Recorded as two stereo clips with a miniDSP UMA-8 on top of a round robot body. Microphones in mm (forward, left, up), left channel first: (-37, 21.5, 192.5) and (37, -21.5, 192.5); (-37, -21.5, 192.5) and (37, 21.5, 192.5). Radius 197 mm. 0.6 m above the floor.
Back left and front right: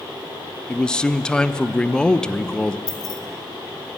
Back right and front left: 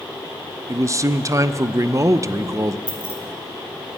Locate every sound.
0.7 s a man speaking: 70° left, 0.7 m
2.9 s keys jangling: 105° left, 1.4 m